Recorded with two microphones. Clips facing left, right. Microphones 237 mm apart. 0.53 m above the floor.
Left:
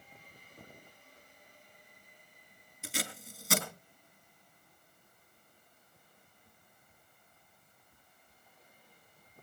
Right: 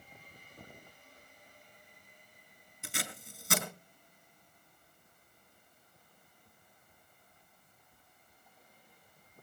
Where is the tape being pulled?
Centre (ahead or behind), 4.5 m.